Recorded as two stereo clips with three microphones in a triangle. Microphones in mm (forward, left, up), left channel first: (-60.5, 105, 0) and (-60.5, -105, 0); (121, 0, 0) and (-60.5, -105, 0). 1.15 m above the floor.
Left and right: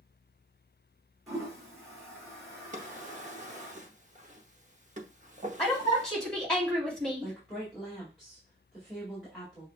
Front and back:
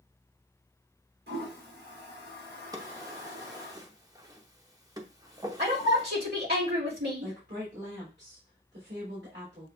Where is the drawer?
90° right, 0.8 m.